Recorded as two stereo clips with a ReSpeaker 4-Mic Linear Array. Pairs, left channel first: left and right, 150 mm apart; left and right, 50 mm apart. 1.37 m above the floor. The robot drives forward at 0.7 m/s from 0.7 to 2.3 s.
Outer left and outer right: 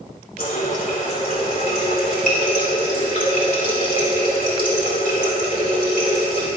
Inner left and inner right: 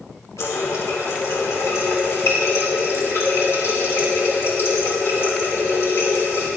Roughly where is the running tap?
Left.